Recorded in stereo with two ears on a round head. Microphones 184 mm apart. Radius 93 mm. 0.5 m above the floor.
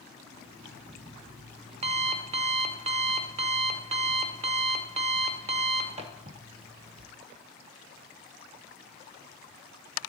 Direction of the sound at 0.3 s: 30° right (ahead or behind).